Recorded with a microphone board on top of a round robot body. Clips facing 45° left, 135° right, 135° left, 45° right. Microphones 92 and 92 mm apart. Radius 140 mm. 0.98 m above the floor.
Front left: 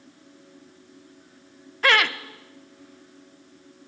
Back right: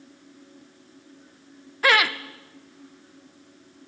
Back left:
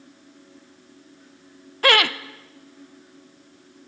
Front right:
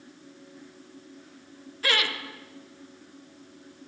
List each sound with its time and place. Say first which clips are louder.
1.8 s laughter: even, back left 9 dB; 140° left, 0.9 m